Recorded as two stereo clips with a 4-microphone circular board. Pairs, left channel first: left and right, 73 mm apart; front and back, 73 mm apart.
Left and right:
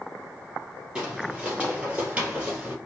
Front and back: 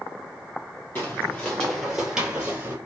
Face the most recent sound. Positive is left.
turn(degrees=-150)